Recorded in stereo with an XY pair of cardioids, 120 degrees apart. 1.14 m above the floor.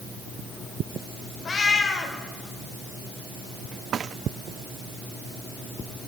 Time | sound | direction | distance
1.4 | a cat meowing | 30° left | 2 m